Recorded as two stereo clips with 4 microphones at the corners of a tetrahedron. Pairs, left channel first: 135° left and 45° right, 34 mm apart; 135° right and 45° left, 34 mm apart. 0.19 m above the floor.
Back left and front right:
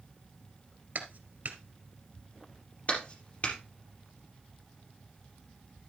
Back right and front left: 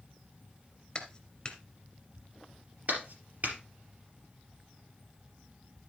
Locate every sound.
0.9 s a clap: 65° right, 2 m
2.9 s a clap: 85° left, 4 m